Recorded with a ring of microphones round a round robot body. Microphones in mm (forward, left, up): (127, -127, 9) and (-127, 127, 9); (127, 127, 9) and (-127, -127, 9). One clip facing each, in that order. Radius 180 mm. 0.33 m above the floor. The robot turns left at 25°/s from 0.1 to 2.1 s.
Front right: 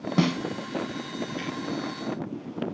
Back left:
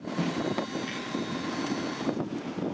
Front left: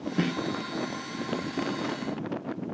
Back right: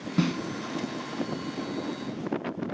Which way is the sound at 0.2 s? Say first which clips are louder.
Front right 6 dB, back right 2 dB; 70° right.